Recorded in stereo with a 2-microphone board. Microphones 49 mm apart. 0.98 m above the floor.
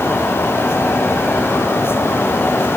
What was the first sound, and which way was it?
Only background noise.